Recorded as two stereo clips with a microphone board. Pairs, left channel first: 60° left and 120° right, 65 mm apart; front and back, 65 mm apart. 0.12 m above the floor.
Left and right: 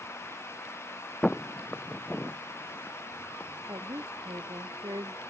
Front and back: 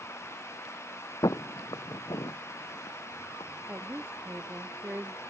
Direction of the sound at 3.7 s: 120° right.